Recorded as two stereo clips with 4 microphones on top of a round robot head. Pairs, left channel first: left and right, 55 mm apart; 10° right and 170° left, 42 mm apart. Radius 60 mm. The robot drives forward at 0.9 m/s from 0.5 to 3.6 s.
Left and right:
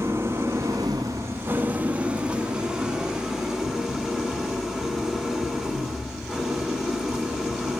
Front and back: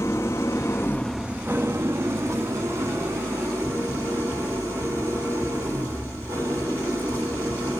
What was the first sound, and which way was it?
An engine running, 35° right.